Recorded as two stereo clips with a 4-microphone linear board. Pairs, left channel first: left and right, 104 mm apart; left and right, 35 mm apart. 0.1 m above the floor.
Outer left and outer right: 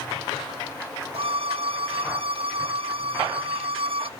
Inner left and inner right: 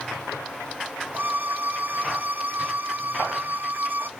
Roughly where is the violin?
Right.